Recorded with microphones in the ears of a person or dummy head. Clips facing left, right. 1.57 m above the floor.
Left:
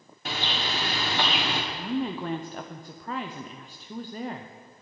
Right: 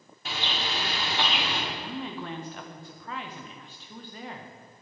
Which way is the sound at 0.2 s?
45° left (ahead or behind).